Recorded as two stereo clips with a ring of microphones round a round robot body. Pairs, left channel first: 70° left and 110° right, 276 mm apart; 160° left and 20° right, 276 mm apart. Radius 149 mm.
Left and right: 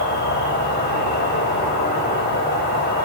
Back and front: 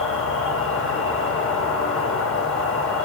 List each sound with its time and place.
0.0 s an insect: 120° left, 2 m